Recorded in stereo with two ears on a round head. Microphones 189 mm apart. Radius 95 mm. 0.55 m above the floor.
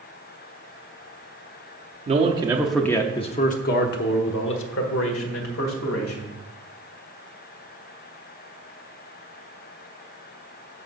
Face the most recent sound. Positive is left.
turn(degrees=75)  # may be behind; listen again after turning